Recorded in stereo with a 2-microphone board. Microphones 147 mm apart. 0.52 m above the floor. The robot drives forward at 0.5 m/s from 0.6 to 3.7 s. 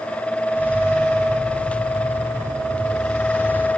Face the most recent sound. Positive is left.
No sound to turn to.